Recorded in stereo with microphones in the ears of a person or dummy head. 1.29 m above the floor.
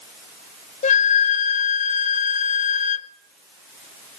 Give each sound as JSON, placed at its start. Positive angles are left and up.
{"t": 0.8, "sound": "a flute", "side_deg": 35, "distance_m": 0.9}